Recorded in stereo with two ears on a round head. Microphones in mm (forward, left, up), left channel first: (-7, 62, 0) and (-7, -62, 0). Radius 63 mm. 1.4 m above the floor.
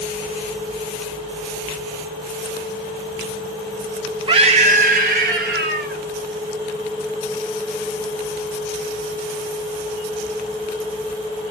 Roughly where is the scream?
Right.